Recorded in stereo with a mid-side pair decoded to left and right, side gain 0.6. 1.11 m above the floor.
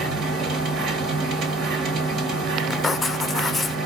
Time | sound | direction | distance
0.0 | a machine running | 55° right | 1.6 m
2.7 | writing | 25° left | 0.6 m